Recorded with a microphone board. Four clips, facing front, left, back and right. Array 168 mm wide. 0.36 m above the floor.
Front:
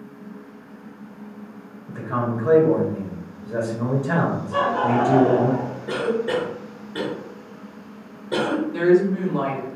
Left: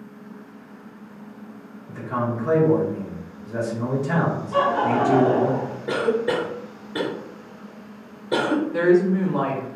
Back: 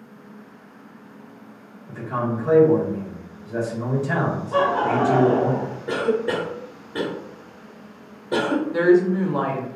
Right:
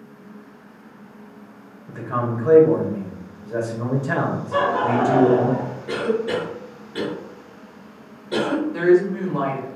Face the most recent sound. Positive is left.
turn(degrees=155)